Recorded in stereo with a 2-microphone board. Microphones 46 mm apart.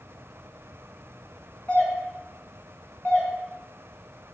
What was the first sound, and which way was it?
A doorbell, 30° left (ahead or behind).